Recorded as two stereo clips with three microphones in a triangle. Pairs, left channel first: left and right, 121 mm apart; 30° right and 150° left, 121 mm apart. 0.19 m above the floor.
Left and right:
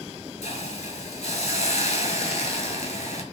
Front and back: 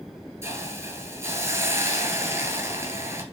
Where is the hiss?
85° left, 0.6 m.